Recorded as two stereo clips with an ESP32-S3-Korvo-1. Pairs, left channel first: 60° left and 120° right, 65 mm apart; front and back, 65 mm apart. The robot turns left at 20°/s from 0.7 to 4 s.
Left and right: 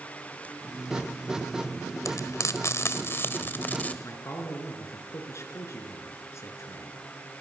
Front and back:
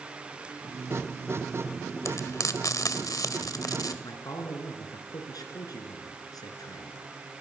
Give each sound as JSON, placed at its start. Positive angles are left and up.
{"t": 2.0, "sound": "frying", "azimuth_deg": 35, "distance_m": 1.7}
{"t": 4.0, "sound": "a man speaking", "azimuth_deg": 15, "distance_m": 5.0}